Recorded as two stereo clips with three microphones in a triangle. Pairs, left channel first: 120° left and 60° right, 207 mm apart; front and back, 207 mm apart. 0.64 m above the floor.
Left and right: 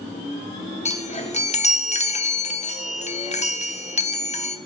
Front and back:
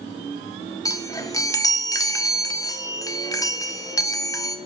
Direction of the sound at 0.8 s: 70° left.